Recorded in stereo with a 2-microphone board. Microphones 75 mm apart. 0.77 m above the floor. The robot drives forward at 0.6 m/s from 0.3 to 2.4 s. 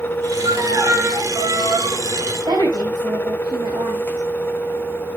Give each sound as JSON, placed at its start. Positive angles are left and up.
{"t": 0.4, "sound": "a violin", "side_deg": -45, "distance_m": 3.5}
{"t": 2.5, "sound": "a woman speaking", "side_deg": -85, "distance_m": 4.5}